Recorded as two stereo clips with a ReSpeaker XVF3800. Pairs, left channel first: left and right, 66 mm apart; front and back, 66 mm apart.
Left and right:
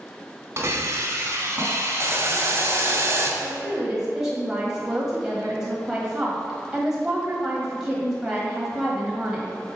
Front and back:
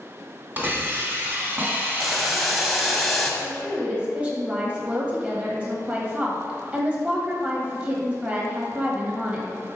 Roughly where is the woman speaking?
Behind right.